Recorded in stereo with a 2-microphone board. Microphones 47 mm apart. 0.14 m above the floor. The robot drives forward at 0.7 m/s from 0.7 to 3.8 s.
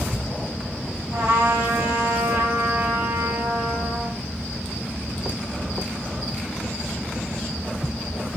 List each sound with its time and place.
1.1 s a trumpet: 65° right (ahead or behind), 4.5 m; by 4.2 s 55° right (ahead or behind), 5 m